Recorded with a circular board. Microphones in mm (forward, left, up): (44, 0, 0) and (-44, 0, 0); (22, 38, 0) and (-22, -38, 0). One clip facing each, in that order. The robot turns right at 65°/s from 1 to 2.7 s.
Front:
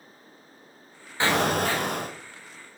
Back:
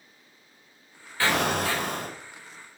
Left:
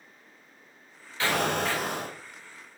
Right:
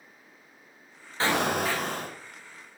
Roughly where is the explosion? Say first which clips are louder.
Front 2 dB, right 1 dB; ahead right.